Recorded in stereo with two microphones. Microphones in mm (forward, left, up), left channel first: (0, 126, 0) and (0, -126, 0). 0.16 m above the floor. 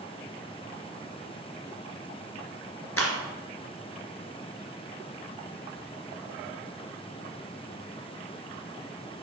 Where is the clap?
60° left (ahead or behind), 2.5 m.